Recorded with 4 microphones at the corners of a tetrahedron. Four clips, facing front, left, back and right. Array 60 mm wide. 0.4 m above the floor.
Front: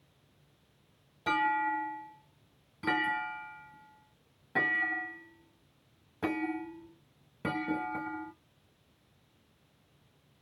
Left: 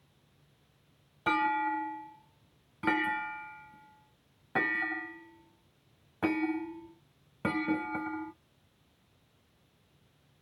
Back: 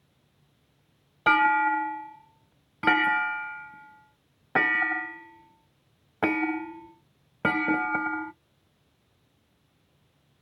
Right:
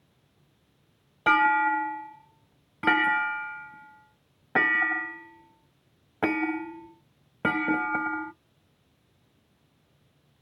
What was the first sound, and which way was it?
A clunk, 145° right.